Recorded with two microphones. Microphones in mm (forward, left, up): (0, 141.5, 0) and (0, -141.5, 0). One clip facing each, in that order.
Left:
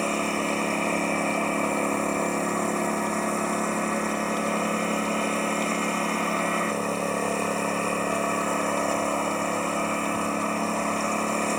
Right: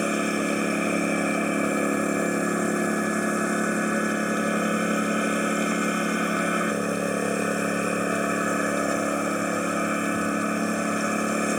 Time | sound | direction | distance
0.0 | a lawn mower | 15° right (ahead or behind) | ?